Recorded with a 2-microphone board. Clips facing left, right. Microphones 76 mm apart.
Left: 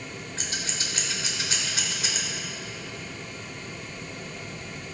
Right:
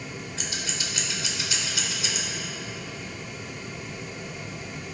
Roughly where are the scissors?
Left.